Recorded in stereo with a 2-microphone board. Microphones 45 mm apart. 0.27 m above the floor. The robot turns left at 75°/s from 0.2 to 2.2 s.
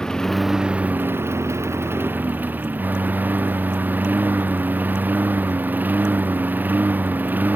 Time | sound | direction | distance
0.0 | a lawn mower | 15° left | ?